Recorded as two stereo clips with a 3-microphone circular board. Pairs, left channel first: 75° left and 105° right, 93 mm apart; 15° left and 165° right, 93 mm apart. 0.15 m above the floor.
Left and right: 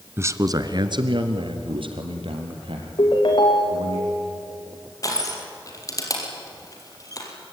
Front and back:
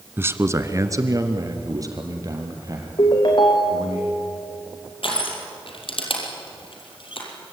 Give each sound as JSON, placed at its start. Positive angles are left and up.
{"t": 0.2, "sound": "a man speaking", "azimuth_deg": -130, "distance_m": 1.2}
{"t": 3.0, "sound": "a ringtone", "azimuth_deg": 45, "distance_m": 3.5}
{"t": 5.0, "sound": "crushing", "azimuth_deg": 25, "distance_m": 5.0}